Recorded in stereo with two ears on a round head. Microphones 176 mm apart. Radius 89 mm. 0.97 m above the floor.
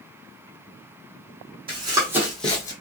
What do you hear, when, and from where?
1.7 s running footsteps: 25° right (ahead or behind), 2.0 m; by 2.7 s 20° left (ahead or behind), 1.4 m